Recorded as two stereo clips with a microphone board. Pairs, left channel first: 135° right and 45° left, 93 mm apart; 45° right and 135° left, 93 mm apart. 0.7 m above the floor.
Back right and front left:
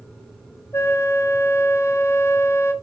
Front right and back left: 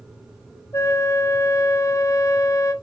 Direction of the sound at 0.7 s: 85° right.